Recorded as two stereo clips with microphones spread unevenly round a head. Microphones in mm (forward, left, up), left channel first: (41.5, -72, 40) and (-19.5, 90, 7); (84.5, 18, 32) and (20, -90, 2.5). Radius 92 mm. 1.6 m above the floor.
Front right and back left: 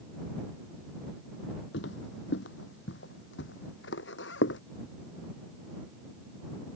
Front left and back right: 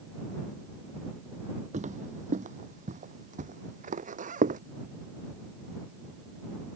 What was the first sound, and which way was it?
Footsteps, 90° right.